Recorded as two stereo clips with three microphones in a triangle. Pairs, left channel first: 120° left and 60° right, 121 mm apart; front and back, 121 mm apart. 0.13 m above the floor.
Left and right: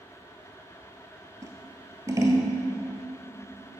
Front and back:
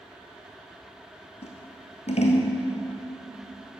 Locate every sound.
1.4 s scissors: straight ahead, 1.3 m